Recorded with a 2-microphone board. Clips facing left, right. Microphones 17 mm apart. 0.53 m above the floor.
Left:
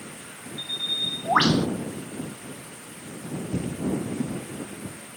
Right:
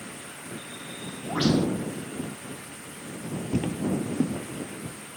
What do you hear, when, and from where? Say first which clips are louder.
0.6 s a bird: left 11 dB; 80° left
3.5 s footsteps: right 1 dB; 40° right (ahead or behind); by 5.0 s 25° right (ahead or behind)